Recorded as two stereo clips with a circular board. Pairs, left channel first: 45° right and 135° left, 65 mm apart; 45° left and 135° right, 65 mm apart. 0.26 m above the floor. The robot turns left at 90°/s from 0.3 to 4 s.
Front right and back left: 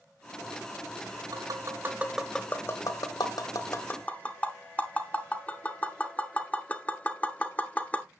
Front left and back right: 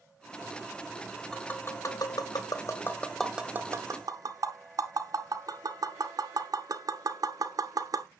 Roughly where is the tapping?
Behind left.